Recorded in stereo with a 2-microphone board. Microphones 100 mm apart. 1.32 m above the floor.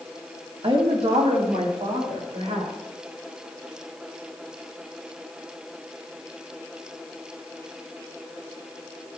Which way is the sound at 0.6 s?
70° right (ahead or behind).